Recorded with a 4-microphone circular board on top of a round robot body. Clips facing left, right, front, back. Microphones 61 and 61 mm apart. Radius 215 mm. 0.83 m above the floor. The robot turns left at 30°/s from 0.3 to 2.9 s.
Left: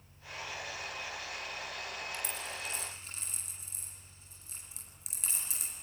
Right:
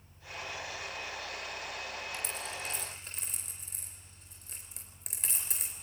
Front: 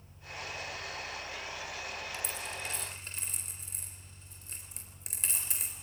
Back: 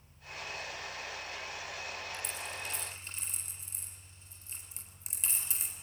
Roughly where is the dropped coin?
Ahead.